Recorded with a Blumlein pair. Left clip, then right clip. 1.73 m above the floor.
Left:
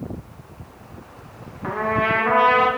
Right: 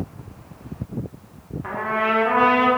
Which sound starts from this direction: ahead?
A trumpet, at 1.6 s.